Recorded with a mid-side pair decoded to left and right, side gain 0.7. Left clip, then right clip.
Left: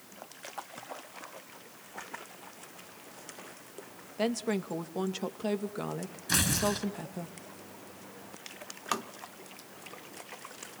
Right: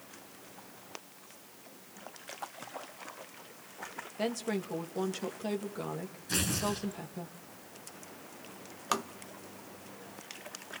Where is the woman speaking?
15° left, 2.5 m.